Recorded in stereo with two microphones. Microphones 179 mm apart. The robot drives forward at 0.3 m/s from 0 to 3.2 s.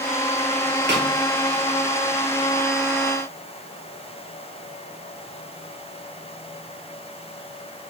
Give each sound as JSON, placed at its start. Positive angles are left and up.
{"t": 0.9, "sound": "a snare drum", "side_deg": -75, "distance_m": 1.5}